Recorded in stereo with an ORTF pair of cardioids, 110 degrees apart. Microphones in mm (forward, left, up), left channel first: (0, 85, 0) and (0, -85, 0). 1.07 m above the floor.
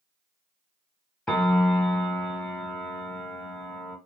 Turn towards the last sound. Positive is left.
turn(degrees=5)